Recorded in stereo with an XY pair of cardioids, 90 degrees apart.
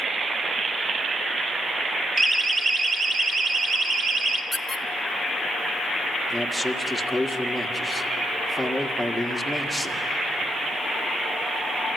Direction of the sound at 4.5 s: 10° left.